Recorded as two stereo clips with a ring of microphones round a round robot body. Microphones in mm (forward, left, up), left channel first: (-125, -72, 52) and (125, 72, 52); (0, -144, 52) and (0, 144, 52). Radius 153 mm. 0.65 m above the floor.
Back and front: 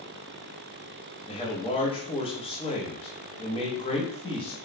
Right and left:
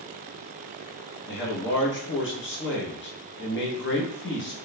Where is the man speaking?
90° right, 0.9 m.